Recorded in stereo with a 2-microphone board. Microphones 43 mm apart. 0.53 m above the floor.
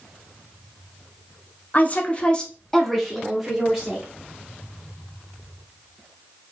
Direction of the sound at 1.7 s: 40° left (ahead or behind).